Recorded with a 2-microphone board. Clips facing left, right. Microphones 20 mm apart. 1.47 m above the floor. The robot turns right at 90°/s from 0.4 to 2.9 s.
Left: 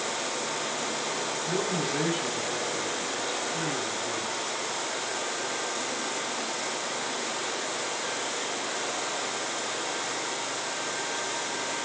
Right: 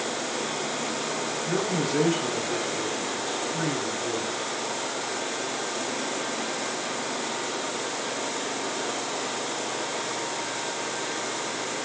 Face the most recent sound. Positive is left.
turn(degrees=-70)